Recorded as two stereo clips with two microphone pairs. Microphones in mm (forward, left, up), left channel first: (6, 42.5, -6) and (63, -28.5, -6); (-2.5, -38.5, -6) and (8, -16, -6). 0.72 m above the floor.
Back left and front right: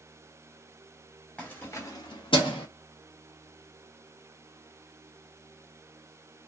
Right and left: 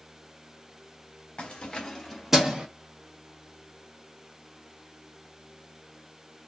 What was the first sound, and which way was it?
Keys jangling, 155° right.